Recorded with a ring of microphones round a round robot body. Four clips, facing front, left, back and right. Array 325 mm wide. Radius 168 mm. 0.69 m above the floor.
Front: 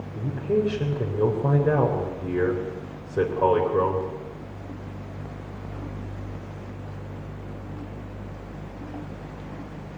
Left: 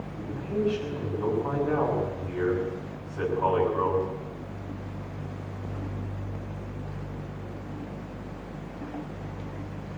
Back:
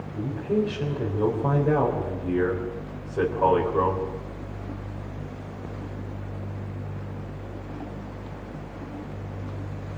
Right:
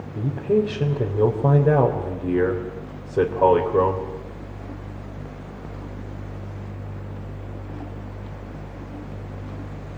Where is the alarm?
I don't hear an alarm.